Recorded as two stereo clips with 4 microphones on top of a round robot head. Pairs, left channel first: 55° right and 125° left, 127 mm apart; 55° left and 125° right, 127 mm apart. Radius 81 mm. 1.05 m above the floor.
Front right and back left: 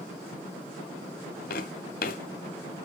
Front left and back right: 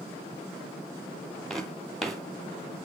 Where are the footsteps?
35° right, 1.7 m.